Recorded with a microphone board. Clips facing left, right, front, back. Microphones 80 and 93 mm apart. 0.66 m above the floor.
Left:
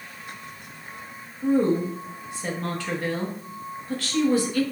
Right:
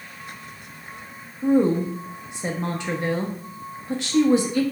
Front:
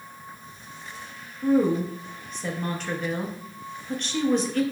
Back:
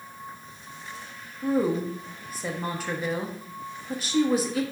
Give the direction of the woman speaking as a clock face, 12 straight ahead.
4 o'clock.